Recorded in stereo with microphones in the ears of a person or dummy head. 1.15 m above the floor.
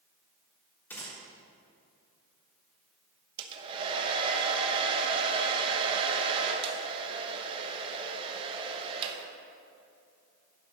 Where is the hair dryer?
30° right (ahead or behind), 0.9 m.